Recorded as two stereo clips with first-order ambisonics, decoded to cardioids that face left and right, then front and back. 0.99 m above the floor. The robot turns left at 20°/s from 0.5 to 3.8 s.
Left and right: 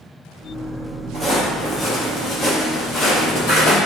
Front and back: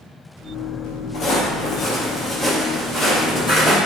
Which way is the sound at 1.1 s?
10° left.